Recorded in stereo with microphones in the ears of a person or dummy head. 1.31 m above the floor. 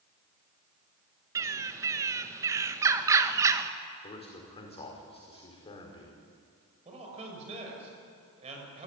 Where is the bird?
10° right (ahead or behind), 1.4 m.